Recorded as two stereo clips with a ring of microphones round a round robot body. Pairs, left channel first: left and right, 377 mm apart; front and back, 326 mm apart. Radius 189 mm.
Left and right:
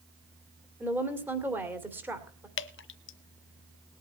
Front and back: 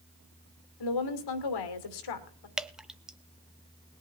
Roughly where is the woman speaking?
Ahead.